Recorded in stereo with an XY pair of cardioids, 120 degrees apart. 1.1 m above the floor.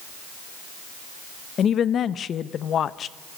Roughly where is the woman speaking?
Ahead left.